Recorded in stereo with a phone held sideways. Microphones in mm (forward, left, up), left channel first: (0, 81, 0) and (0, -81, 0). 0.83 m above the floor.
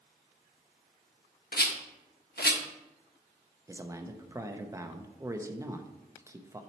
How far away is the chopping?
I don't hear chopping.